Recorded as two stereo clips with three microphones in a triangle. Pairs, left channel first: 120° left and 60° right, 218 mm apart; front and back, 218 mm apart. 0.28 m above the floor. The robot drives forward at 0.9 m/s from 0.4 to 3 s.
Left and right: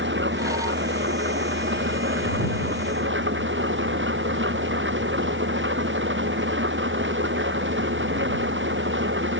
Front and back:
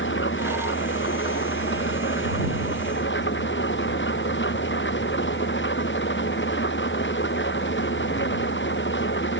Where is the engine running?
30° right.